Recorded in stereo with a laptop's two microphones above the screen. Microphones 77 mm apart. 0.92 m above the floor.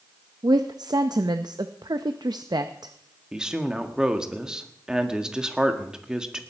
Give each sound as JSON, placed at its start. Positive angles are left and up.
{"t": 0.4, "sound": "a woman speaking", "side_deg": -65, "distance_m": 0.5}
{"t": 3.3, "sound": "a woman speaking", "side_deg": -10, "distance_m": 1.7}